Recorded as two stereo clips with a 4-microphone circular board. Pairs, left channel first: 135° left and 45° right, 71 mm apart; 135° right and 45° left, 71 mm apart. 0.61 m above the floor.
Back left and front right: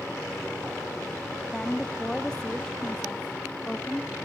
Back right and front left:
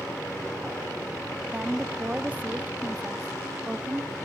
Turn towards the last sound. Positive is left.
turn(degrees=70)